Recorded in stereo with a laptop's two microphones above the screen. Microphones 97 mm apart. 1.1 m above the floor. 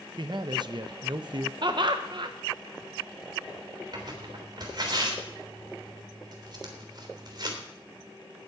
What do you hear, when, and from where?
0.2 s a man speaking: 50° right (ahead or behind), 0.6 m
1.6 s laughter: 50° right (ahead or behind), 1.0 m
3.9 s tearing paper: 50° right (ahead or behind), 3.5 m